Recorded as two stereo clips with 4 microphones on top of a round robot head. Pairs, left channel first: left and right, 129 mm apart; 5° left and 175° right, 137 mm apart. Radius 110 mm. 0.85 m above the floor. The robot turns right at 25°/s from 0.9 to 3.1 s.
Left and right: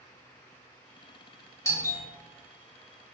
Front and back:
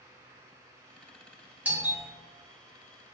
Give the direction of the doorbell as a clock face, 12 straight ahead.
8 o'clock.